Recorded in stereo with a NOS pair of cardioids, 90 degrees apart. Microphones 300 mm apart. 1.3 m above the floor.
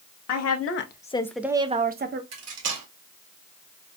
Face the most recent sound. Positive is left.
turn(degrees=-55)